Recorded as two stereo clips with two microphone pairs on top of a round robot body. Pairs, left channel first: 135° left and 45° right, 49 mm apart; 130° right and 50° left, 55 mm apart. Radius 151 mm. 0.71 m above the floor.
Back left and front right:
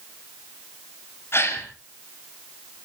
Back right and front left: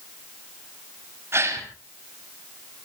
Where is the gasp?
95° left, 5 m.